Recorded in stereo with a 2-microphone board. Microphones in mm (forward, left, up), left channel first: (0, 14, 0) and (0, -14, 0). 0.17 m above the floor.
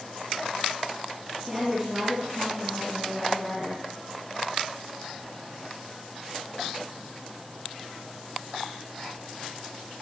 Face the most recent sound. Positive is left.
turn(degrees=-15)  # may be behind; listen again after turning